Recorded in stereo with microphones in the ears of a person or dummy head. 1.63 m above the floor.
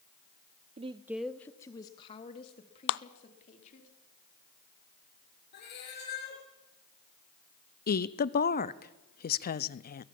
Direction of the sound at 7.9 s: 50° left (ahead or behind).